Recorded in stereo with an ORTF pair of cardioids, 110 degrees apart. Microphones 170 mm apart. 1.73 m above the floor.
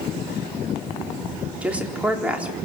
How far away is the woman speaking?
About 4 m.